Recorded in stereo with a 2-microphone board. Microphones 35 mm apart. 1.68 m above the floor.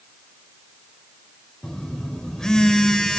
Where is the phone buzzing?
15° left (ahead or behind), 4 m.